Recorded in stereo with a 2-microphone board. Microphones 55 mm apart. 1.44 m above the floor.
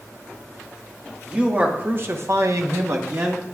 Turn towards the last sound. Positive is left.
turn(degrees=-45)  # may be behind; listen again after turning